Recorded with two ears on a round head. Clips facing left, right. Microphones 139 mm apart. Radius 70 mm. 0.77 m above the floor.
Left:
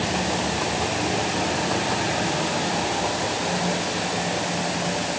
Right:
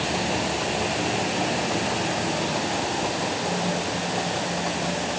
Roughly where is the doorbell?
I don't hear a doorbell.